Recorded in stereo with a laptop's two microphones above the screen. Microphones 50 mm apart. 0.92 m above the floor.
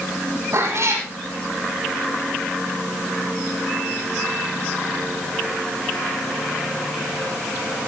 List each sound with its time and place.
0.5 s a cat meowing: 60° right (ahead or behind), 6 m